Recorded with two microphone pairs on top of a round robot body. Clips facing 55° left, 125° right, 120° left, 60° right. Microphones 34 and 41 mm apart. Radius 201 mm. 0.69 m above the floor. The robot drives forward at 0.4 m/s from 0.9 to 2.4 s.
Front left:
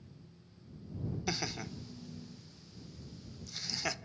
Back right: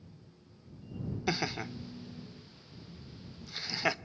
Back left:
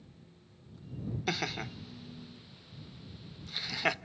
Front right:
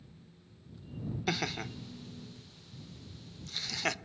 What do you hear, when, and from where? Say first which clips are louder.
1.3 s laughter: back right 6 dB, even; 175° right, 0.7 m